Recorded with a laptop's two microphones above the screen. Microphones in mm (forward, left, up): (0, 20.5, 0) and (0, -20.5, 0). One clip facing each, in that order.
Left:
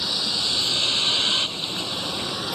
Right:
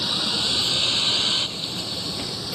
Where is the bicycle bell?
I don't hear a bicycle bell.